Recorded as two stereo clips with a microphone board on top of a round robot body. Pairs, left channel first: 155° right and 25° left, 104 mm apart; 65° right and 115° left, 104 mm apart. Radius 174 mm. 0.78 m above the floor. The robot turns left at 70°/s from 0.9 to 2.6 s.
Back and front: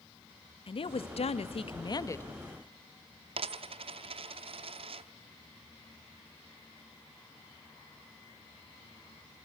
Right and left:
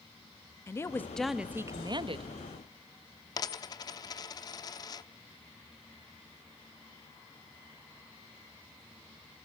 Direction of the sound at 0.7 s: 130° right.